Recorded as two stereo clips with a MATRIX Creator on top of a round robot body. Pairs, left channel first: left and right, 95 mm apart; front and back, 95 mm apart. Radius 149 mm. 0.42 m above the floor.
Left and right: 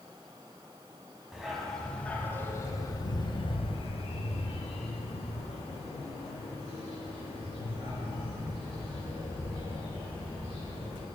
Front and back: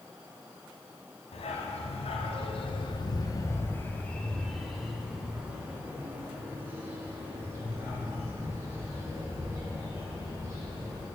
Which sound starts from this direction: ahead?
A dog barking, at 1.3 s.